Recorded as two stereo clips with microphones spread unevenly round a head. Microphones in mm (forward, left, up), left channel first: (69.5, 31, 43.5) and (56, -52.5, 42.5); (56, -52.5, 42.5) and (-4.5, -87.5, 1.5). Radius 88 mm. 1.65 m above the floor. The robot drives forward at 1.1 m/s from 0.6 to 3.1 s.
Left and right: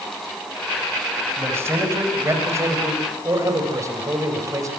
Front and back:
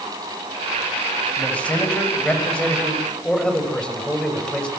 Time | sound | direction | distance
1.4 | a man speaking | 40° right | 9.5 m